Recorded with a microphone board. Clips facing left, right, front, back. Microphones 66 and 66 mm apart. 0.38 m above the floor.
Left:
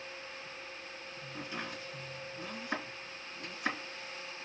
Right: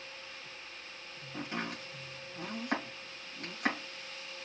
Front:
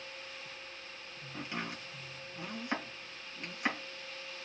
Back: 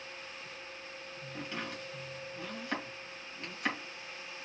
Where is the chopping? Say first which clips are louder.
Right 4 dB, even; 75° right, 2.5 m.